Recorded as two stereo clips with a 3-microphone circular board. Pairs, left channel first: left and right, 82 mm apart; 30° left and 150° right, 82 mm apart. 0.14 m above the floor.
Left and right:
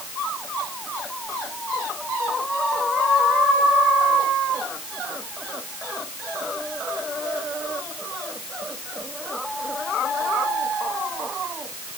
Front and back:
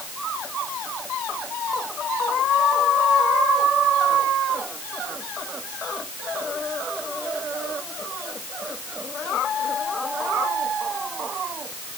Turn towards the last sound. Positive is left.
No sound to turn to.